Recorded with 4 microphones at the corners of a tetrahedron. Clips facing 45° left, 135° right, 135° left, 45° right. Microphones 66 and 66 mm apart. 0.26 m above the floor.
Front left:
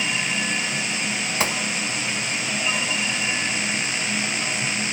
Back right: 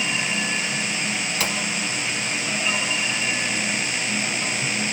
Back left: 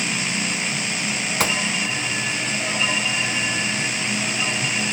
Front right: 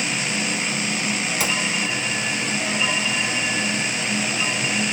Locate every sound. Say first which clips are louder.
1.4 s a gunshot: front left 3 dB, back left 4 dB; 100° left, 0.7 m